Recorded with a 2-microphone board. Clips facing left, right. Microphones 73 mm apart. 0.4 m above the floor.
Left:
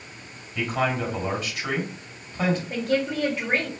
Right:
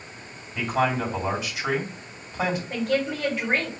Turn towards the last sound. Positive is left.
turn(degrees=-5)  # may be behind; listen again after turning